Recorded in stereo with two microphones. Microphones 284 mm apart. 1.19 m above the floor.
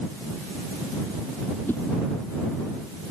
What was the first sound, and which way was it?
A whoosh, 5° left (ahead or behind).